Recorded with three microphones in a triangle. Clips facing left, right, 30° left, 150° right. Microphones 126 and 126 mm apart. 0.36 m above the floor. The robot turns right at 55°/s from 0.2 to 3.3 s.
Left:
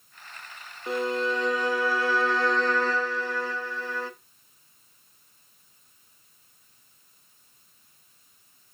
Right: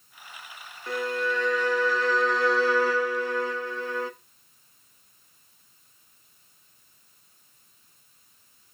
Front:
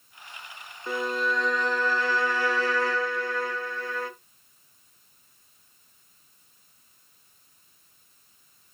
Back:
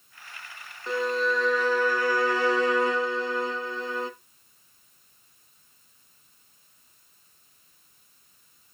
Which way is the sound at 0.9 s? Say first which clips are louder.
Left 2 dB, back 2 dB; 95° left.